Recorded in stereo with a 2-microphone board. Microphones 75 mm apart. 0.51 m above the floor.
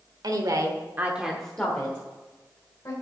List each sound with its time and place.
0.2 s a woman speaking: 60° right (ahead or behind), 1.5 m; by 2.9 s 40° left (ahead or behind), 3 m